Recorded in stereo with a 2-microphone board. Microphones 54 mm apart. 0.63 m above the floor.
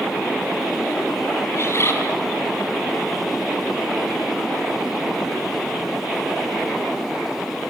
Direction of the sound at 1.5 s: 50° left (ahead or behind).